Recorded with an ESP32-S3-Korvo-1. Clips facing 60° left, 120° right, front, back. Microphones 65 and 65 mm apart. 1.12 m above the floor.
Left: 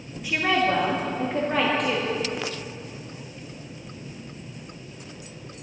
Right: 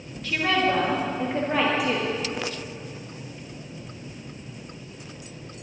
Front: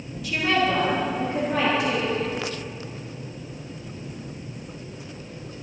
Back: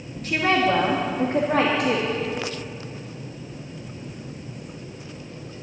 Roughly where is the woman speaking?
Behind left.